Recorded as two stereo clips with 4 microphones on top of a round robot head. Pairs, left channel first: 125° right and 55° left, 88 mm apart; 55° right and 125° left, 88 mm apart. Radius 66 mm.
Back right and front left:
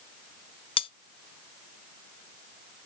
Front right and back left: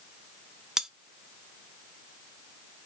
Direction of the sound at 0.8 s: 150° right.